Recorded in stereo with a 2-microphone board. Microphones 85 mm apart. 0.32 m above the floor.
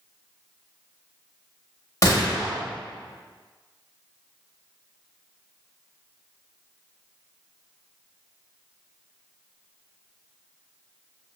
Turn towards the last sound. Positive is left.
turn(degrees=40)  # may be behind; listen again after turning